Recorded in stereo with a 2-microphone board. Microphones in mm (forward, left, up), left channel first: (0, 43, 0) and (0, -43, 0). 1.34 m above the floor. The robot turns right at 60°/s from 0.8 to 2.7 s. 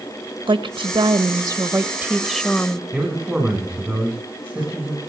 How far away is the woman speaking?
About 1.3 m.